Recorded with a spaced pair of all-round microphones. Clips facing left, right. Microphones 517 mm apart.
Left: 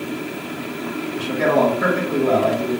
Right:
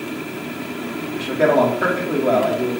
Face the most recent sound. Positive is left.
turn(degrees=20)  # may be behind; listen again after turning